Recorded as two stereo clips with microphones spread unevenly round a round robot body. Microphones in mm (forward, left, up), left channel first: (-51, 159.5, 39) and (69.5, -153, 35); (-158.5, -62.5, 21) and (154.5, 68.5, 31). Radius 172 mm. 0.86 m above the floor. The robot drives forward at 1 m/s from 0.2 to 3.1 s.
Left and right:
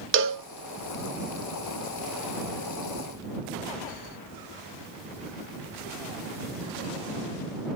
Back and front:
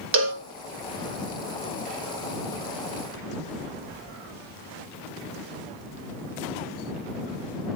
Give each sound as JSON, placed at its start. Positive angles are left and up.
{"t": 0.1, "sound": "a cowbell", "azimuth_deg": -25, "distance_m": 1.5}